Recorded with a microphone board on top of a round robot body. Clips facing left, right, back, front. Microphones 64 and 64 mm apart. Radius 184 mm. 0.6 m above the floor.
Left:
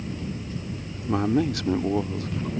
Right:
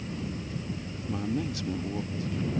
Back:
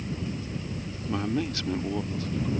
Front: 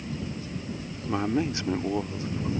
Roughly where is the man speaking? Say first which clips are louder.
Left 9 dB, front 2 dB; left.